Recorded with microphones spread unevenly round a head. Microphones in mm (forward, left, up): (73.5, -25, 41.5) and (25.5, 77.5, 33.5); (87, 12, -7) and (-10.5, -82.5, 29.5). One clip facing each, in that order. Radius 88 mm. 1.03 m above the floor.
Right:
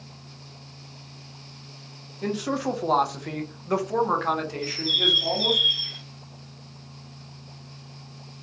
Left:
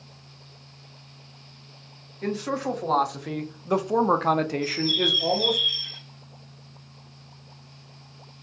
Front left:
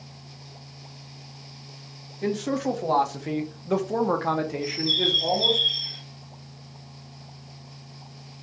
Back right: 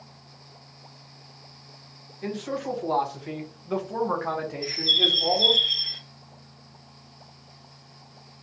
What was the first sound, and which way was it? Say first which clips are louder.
A man speaking: right 1 dB, front left 5 dB; 10° left.